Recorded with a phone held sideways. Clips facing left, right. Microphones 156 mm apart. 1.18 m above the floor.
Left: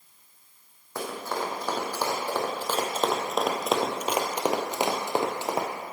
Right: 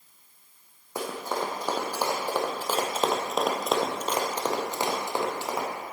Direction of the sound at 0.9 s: 15° right (ahead or behind).